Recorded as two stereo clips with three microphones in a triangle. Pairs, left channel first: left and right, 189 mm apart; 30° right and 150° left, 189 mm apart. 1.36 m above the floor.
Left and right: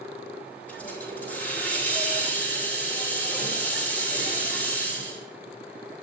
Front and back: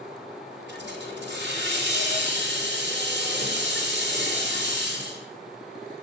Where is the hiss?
170° left, 4.5 m.